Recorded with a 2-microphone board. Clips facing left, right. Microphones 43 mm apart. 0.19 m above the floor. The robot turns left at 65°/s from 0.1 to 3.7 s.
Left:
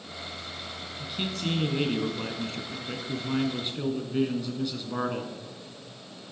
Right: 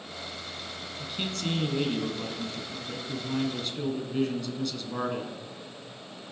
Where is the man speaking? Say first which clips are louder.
Left 1 dB; 165° right, 1.7 m; by 5.4 s 15° left, 1.7 m.